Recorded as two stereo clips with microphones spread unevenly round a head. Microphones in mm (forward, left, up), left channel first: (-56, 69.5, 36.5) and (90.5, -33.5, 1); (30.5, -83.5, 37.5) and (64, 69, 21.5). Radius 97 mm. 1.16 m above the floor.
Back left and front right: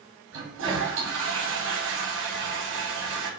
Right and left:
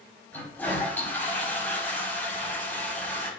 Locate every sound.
0.3 s a toilet flushing: 25° right, 5 m